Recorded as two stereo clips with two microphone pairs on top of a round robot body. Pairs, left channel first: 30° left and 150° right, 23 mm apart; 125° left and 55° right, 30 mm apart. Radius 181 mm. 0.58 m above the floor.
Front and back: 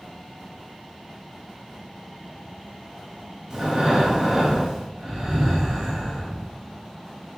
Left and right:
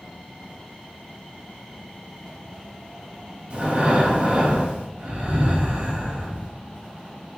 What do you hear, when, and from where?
3.5 s breathing: 90° right, 3.5 m